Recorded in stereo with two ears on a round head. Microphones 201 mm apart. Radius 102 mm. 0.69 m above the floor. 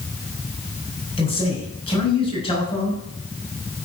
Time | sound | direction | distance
1.2 | a man speaking | 25° left (ahead or behind) | 5 m